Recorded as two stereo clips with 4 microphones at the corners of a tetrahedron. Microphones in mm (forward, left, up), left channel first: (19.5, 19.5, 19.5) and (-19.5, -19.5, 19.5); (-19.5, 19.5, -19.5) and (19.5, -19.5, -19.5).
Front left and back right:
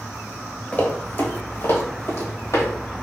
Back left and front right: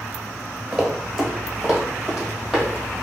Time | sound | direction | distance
0.7 | running footsteps | 35° left | 1.0 m